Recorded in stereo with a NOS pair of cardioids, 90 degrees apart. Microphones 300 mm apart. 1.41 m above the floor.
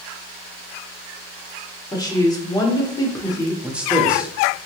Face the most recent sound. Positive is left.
turn(degrees=-5)